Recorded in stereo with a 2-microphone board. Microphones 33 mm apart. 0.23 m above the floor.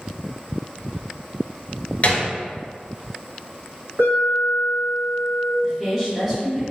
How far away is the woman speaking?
About 1.2 m.